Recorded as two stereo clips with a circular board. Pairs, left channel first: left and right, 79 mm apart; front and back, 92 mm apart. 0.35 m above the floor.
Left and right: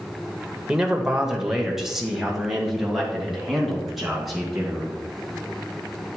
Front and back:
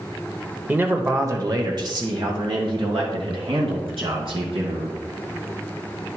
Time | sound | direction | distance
0.7 | a man speaking | 150° right | 1.0 m